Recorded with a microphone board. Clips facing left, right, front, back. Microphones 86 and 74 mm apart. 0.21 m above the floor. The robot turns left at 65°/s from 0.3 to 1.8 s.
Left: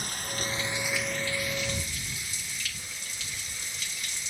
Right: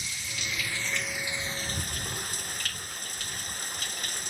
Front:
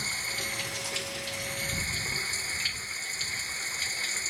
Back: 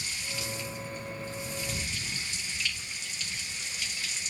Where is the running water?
45° left; by 4.3 s 50° right.